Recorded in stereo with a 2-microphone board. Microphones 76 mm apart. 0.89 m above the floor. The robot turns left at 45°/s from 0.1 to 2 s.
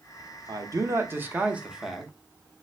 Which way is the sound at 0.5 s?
110° right.